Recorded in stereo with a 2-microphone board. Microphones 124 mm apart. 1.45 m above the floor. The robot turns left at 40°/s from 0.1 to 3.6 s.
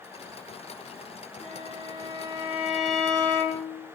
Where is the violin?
120° right, 1.1 m; by 3.8 s 150° left, 1.1 m.